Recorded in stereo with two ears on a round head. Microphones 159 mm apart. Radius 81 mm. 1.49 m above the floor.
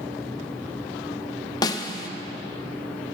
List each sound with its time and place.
1.6 s a snare drum: 20° left (ahead or behind), 0.7 m